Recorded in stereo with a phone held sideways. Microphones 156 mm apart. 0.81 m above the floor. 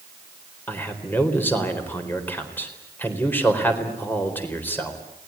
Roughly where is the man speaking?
Centre.